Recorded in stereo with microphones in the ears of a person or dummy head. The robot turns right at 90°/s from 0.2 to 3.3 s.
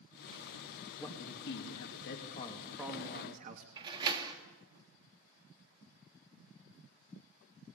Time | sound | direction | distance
1.0 | a man speaking | 15° left | 2.5 m
3.8 | a door slam | 30° right (ahead or behind) | 3 m